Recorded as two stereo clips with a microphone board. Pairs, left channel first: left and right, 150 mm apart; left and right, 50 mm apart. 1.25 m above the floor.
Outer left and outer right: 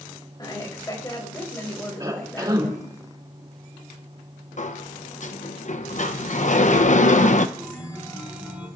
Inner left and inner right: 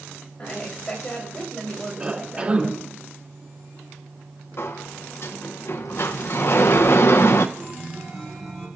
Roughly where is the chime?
Centre.